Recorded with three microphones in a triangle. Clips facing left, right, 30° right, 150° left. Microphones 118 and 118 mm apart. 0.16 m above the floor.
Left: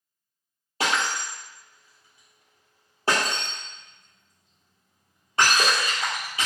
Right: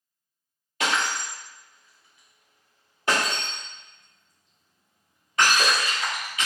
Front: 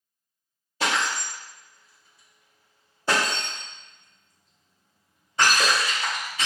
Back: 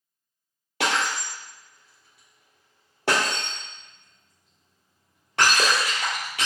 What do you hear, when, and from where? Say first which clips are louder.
0.8 s breaking glass: even, back 1 dB; 145° left, 2.0 m